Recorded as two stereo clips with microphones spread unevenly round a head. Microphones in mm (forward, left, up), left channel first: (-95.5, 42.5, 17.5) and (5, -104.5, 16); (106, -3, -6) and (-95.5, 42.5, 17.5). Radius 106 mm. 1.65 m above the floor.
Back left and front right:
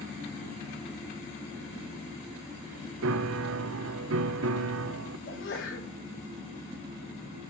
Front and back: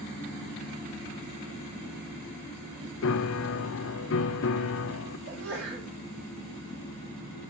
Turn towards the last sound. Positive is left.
turn(degrees=135)